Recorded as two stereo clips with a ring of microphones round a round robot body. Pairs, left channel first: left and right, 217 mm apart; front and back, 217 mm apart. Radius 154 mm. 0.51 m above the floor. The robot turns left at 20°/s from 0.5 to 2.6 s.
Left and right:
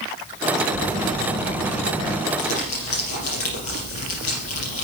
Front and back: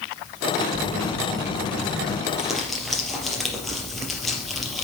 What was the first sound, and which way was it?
A phone buzzing, 115° left.